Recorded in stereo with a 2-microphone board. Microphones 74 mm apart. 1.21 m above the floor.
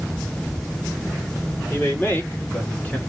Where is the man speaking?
25° left (ahead or behind), 3 m; by 3.0 s 20° left (ahead or behind), 2 m.